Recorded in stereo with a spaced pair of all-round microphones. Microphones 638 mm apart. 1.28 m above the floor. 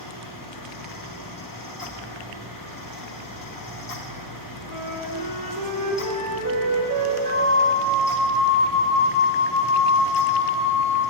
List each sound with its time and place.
0.0 s a fan: 35° left (ahead or behind), 0.7 m
4.7 s a flute: 30° right (ahead or behind), 1.0 m
7.2 s a flute: 35° right (ahead or behind), 2.5 m